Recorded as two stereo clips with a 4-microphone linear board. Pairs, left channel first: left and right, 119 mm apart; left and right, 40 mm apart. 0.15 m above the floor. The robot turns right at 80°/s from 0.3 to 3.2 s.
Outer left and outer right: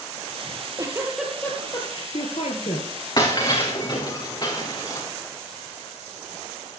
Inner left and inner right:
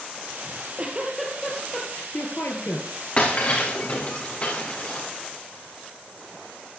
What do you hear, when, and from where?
0.5 s a giggle: 60° right, 3 m; by 2.9 s 135° left, 3 m
3.2 s breaking glass: 40° left (ahead or behind), 3.5 m